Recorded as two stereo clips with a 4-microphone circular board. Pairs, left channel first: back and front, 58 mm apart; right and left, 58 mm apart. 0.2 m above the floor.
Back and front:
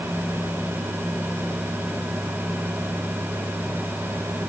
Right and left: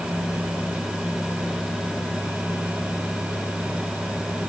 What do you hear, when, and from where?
Only background noise.